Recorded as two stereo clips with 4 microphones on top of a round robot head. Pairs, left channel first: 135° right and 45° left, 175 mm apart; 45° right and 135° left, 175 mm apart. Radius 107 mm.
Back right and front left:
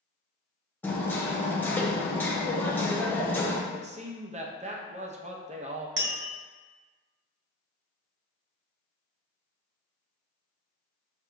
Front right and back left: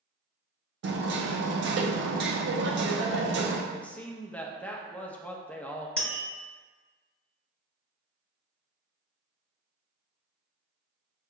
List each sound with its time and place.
0.8 s hammering: 145° left, 0.6 m
3.7 s a man speaking: 35° left, 0.7 m
6.0 s tapping: 40° left, 0.9 m